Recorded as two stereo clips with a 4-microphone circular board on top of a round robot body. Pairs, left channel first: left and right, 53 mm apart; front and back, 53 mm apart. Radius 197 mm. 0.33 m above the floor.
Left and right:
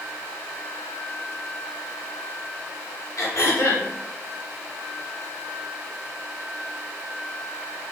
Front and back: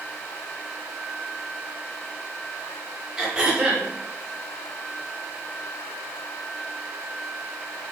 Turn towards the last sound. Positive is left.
turn(degrees=105)